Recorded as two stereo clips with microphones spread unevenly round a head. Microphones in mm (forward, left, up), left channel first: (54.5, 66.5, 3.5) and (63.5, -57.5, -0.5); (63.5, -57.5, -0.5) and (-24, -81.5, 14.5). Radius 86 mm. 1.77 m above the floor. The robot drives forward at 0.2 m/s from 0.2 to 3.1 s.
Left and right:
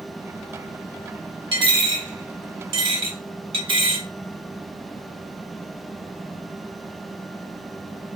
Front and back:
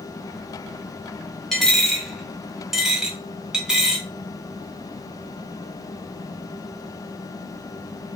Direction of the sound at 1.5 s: 80° right.